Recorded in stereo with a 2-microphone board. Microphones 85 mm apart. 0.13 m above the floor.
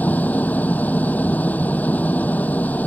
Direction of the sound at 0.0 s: 20° left (ahead or behind).